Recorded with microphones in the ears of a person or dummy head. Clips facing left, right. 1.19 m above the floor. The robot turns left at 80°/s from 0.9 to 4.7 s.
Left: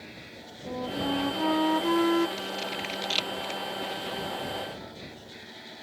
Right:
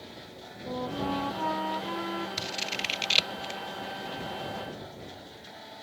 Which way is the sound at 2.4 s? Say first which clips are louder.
Left 3 dB; 55° right (ahead or behind).